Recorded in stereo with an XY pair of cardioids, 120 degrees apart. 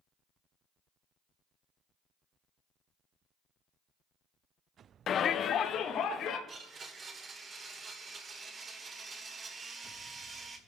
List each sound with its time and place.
5.1 s a shout: 45° left, 0.5 m; by 6.4 s 60° left, 2 m
6.5 s a blender: 40° right, 2 m